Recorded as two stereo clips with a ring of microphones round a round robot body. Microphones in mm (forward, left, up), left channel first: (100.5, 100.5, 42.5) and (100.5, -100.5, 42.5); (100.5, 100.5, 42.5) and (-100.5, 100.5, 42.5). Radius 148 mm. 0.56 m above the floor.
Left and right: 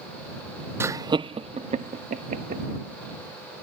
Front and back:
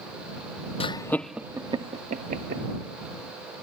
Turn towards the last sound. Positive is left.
turn(degrees=-140)